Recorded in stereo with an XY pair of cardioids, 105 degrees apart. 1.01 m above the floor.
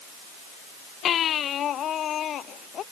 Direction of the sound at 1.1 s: 60° left.